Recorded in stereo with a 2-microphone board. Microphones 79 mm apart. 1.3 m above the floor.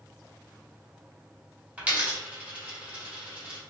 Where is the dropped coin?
20° right (ahead or behind), 1.0 m.